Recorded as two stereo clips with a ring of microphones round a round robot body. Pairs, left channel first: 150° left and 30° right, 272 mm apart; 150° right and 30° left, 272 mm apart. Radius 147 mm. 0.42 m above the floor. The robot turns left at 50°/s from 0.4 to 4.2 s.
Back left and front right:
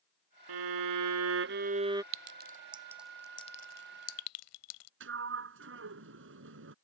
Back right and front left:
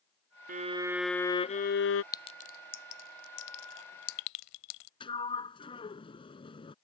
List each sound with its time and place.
0.5 s a violin: 30° right; by 2.0 s 110° right
2.1 s a clink: 75° right; by 4.9 s 175° right
5.0 s a sliding door: 75° right